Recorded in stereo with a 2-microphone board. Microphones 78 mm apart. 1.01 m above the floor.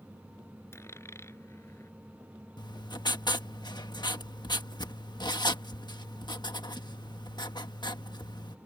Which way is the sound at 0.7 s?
35° left (ahead or behind).